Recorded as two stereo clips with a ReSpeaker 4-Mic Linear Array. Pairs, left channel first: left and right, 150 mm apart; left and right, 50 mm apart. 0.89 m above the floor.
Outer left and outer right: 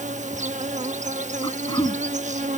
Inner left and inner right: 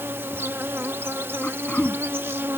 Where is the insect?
55° right (ahead or behind).